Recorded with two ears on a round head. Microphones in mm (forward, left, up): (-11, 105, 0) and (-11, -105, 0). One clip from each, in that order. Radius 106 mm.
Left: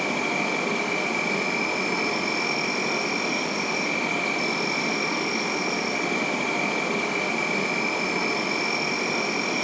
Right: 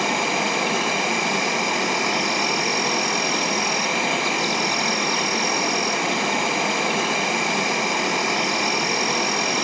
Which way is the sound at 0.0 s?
40° right (ahead or behind).